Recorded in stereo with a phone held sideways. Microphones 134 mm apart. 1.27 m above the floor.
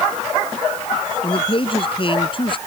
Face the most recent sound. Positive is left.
turn(degrees=40)  # may be behind; listen again after turning